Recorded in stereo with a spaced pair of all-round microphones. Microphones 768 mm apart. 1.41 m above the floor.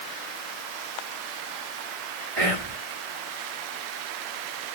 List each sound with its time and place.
2.4 s whispering: 50° right (ahead or behind), 1.1 m